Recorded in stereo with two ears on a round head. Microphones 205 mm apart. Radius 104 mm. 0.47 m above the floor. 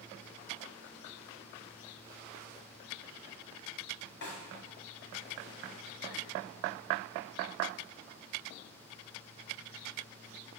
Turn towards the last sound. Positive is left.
turn(degrees=50)  # may be behind; listen again after turning